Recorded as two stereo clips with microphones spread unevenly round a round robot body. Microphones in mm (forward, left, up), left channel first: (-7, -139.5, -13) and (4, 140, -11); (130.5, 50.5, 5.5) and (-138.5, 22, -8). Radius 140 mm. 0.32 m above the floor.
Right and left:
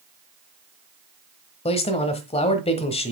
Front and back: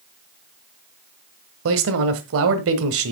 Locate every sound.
1.6 s a man speaking: 155° right, 1.2 m